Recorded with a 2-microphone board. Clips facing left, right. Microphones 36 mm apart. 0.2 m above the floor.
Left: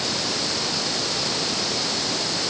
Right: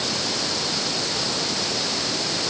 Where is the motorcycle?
I don't hear a motorcycle.